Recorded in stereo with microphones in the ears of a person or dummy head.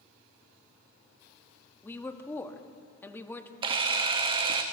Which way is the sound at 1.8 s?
10° left (ahead or behind).